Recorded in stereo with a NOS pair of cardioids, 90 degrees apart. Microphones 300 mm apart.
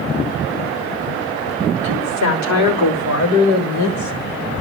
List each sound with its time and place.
1.8 s a woman speaking: 65° left, 5.5 m; by 4.1 s 70° left, 4 m